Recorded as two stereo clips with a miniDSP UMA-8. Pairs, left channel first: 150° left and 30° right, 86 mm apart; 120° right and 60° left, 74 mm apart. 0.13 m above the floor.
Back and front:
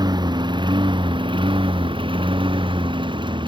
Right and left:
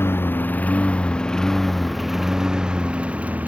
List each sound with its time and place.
0.0 s a lawn mower: 60° right; by 3.5 s 10° right